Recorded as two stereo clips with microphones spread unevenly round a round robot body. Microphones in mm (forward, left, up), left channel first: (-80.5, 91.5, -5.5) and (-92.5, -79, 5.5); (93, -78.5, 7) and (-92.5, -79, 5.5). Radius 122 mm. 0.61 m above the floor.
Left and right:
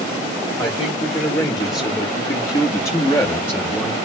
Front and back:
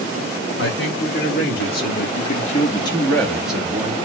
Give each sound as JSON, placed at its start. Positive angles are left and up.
{"t": 0.6, "sound": "a man speaking", "azimuth_deg": 20, "distance_m": 2.5}